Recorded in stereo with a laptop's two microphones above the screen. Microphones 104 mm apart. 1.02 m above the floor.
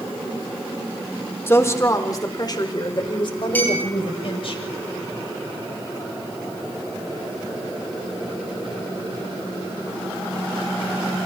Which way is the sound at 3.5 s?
20° left (ahead or behind).